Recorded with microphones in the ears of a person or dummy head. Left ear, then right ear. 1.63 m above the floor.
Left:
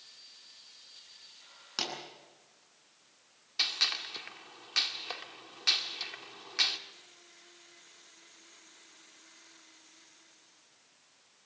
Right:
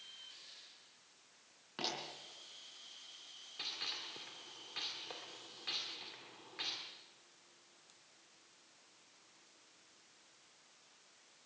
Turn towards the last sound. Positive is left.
turn(degrees=55)  # may be behind; listen again after turning